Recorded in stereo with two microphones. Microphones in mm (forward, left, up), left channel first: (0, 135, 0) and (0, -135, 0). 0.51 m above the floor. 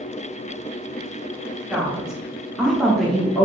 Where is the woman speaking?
5° right (ahead or behind), 1.2 m; by 3.4 s centre (ahead or behind), 1.0 m.